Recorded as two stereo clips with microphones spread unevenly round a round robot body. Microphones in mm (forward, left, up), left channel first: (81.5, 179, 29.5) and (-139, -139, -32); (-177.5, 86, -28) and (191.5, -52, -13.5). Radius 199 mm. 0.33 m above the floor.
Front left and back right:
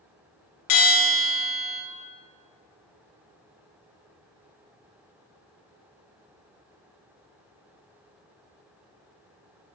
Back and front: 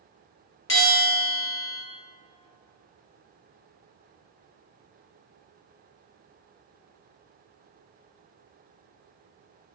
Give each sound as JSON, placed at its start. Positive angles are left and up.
{"t": 0.7, "sound": "a bell", "azimuth_deg": 100, "distance_m": 1.5}